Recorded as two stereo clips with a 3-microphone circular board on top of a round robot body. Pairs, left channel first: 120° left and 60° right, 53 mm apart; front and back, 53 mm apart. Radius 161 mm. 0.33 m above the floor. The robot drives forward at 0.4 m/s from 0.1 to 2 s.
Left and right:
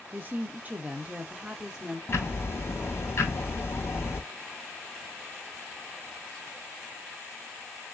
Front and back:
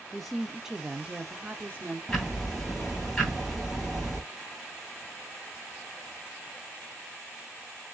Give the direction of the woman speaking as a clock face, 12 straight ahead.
3 o'clock.